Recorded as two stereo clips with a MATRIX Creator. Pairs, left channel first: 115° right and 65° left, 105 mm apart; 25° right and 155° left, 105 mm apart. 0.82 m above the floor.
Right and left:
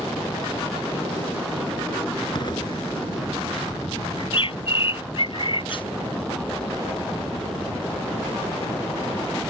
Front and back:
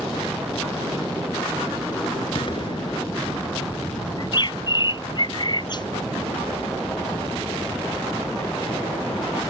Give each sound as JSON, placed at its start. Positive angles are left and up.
{"t": 2.4, "sound": "an explosion", "azimuth_deg": -65}
{"t": 4.2, "sound": "a bird", "azimuth_deg": -70}